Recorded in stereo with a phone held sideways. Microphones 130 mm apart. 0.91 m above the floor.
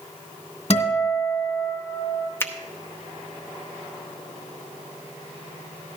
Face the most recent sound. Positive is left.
turn(degrees=20)  # may be behind; listen again after turning